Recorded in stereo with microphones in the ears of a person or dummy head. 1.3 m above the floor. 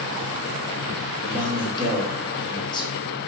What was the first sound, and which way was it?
A man speaking, 25° left (ahead or behind).